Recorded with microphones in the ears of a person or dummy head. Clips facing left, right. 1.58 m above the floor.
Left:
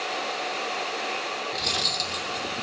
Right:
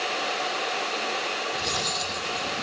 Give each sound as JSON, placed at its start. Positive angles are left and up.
{"t": 1.5, "sound": "cutlery clinking", "side_deg": 25, "distance_m": 2.5}